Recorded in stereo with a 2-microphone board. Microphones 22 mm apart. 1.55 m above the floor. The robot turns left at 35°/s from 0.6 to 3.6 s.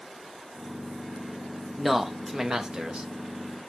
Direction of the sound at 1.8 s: Straight ahead.